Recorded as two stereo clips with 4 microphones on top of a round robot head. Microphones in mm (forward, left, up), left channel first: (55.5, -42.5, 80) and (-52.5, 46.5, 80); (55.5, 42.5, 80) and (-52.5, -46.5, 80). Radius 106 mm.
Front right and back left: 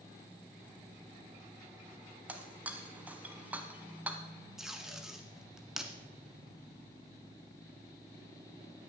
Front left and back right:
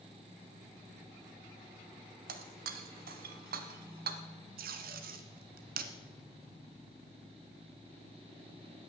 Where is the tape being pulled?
130° right, 1.3 m.